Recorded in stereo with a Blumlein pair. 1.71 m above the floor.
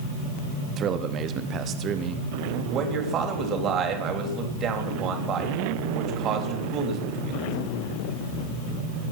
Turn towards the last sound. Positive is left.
turn(degrees=-30)